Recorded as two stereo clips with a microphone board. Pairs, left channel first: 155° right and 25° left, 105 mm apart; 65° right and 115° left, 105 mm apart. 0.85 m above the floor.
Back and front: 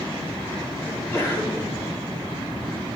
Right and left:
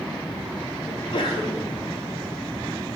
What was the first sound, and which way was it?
A sneeze, 95° right.